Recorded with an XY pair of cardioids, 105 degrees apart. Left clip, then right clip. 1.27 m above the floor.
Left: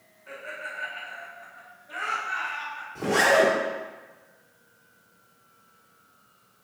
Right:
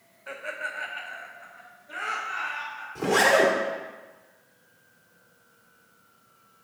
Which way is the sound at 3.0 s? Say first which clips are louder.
Even; 10° right.